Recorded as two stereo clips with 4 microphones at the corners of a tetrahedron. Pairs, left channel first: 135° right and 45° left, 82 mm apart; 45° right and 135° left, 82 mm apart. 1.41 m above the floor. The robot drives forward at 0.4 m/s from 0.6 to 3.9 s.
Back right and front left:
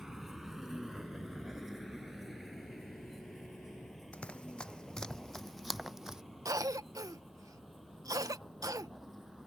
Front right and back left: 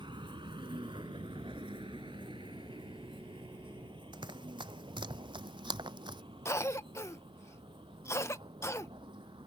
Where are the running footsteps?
150° left; by 6.2 s 125° left.